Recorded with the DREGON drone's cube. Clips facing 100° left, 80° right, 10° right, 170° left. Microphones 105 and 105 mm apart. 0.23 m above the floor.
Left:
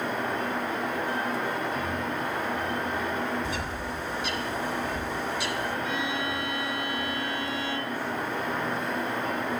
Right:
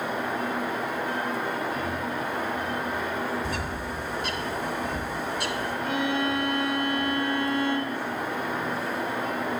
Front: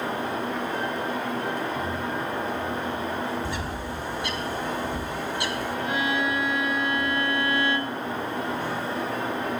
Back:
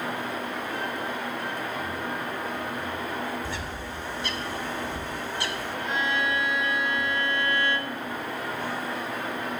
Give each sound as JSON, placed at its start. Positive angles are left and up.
{"t": 3.4, "sound": "a bird", "azimuth_deg": -80, "distance_m": 1.1}
{"t": 5.8, "sound": "a violin", "azimuth_deg": -85, "distance_m": 1.4}